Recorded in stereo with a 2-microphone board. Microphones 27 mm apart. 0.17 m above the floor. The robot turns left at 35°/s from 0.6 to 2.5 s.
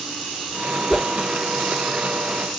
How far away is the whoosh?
About 1.1 m.